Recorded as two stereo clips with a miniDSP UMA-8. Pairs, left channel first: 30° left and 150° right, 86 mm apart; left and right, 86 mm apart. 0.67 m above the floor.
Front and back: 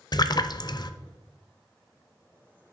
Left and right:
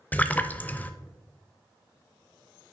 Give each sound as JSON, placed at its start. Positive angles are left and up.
{"t": 0.1, "sound": "a splash", "azimuth_deg": 25, "distance_m": 0.5}